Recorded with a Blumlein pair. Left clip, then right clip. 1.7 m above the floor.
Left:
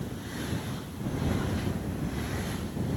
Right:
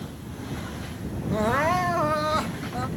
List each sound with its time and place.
1.3 s crying: 45° right